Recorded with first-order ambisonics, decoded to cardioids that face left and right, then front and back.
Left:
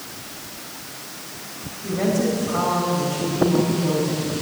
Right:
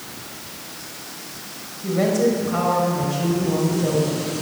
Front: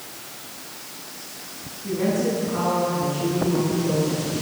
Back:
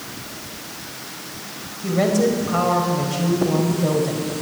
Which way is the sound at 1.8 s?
160° right.